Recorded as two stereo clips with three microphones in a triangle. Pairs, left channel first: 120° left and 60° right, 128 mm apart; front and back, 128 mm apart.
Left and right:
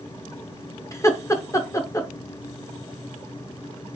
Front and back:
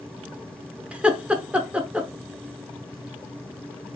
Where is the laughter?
115° left, 0.7 m.